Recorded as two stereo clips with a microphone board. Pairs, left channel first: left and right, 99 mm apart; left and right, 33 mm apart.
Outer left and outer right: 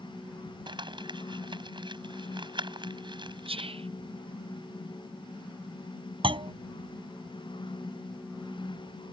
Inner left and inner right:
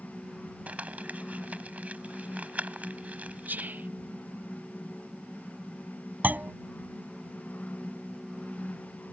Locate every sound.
0.7 s crumpling: 50° right (ahead or behind)
3.5 s whispering: 70° right (ahead or behind)
6.2 s a clunk: 60° right (ahead or behind)